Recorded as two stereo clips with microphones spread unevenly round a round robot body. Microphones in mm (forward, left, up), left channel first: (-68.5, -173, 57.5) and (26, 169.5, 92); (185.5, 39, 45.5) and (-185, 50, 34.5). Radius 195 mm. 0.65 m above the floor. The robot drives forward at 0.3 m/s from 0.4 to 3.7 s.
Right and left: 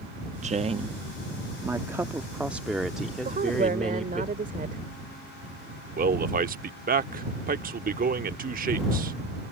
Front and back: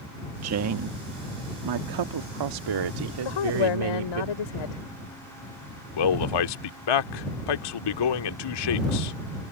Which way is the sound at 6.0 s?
5° left.